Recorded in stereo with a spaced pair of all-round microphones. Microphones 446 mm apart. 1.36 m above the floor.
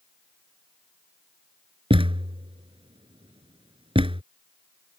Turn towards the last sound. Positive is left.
turn(degrees=-10)  # may be behind; listen again after turning